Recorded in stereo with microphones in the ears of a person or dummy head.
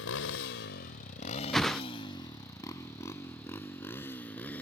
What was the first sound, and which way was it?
A motorcycle, 70° left (ahead or behind).